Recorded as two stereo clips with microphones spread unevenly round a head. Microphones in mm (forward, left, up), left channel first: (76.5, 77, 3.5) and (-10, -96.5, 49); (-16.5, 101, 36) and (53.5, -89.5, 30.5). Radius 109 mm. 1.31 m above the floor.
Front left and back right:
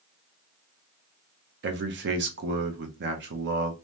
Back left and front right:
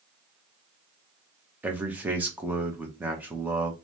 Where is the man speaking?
150° right, 0.6 m.